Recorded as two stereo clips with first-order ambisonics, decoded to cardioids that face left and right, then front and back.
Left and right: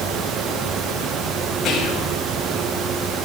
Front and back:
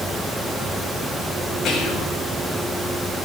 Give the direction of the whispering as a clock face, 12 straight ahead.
11 o'clock.